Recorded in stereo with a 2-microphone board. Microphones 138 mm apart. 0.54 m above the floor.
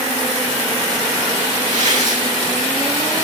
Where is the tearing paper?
70° right (ahead or behind), 3 m.